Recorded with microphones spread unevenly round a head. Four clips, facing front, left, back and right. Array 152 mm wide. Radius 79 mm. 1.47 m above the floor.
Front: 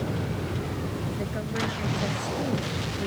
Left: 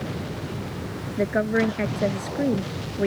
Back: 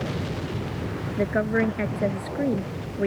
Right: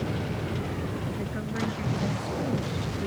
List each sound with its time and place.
1.2 s a woman speaking: 115° left